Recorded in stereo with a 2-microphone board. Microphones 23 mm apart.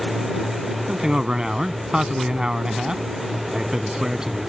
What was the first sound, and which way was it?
A man speaking, 30° right (ahead or behind).